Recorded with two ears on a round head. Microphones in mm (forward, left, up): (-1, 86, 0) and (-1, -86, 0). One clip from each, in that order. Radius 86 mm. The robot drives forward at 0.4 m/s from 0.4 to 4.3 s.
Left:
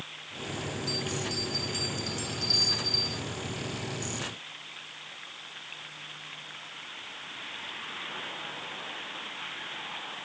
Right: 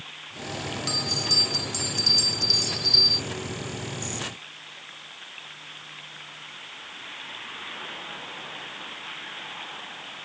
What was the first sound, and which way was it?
A bell, 50° right (ahead or behind).